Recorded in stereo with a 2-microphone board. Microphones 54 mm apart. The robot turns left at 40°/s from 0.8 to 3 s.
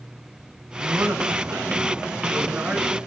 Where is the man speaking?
65° right, 2.5 m; by 3.0 s 155° right, 2.5 m.